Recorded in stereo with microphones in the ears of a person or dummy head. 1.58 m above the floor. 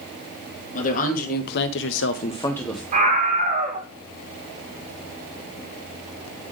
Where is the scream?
45° right (ahead or behind), 1.0 m.